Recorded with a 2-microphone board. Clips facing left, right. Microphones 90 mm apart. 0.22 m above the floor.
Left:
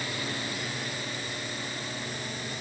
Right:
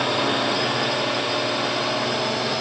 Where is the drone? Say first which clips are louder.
Right 13 dB; 70° right (ahead or behind); by 2.6 s 80° right.